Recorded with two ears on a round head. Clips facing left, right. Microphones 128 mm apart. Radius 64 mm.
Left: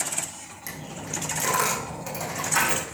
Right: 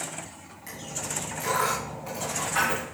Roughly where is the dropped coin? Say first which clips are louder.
Left 1 dB; left.